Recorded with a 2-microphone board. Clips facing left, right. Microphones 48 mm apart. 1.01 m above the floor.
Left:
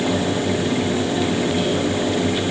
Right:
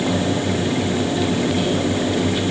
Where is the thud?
I don't hear a thud.